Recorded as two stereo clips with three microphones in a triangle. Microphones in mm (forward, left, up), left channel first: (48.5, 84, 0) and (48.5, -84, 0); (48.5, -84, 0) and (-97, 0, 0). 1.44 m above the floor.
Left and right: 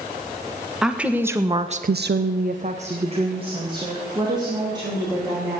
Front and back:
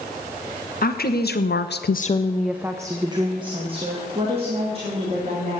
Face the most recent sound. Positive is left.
turn(degrees=-160)